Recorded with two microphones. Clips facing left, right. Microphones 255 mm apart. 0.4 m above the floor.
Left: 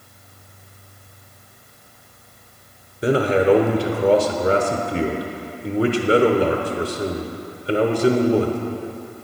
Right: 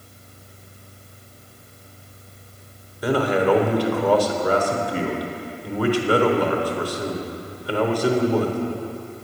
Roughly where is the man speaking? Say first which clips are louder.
Left 3 dB; left.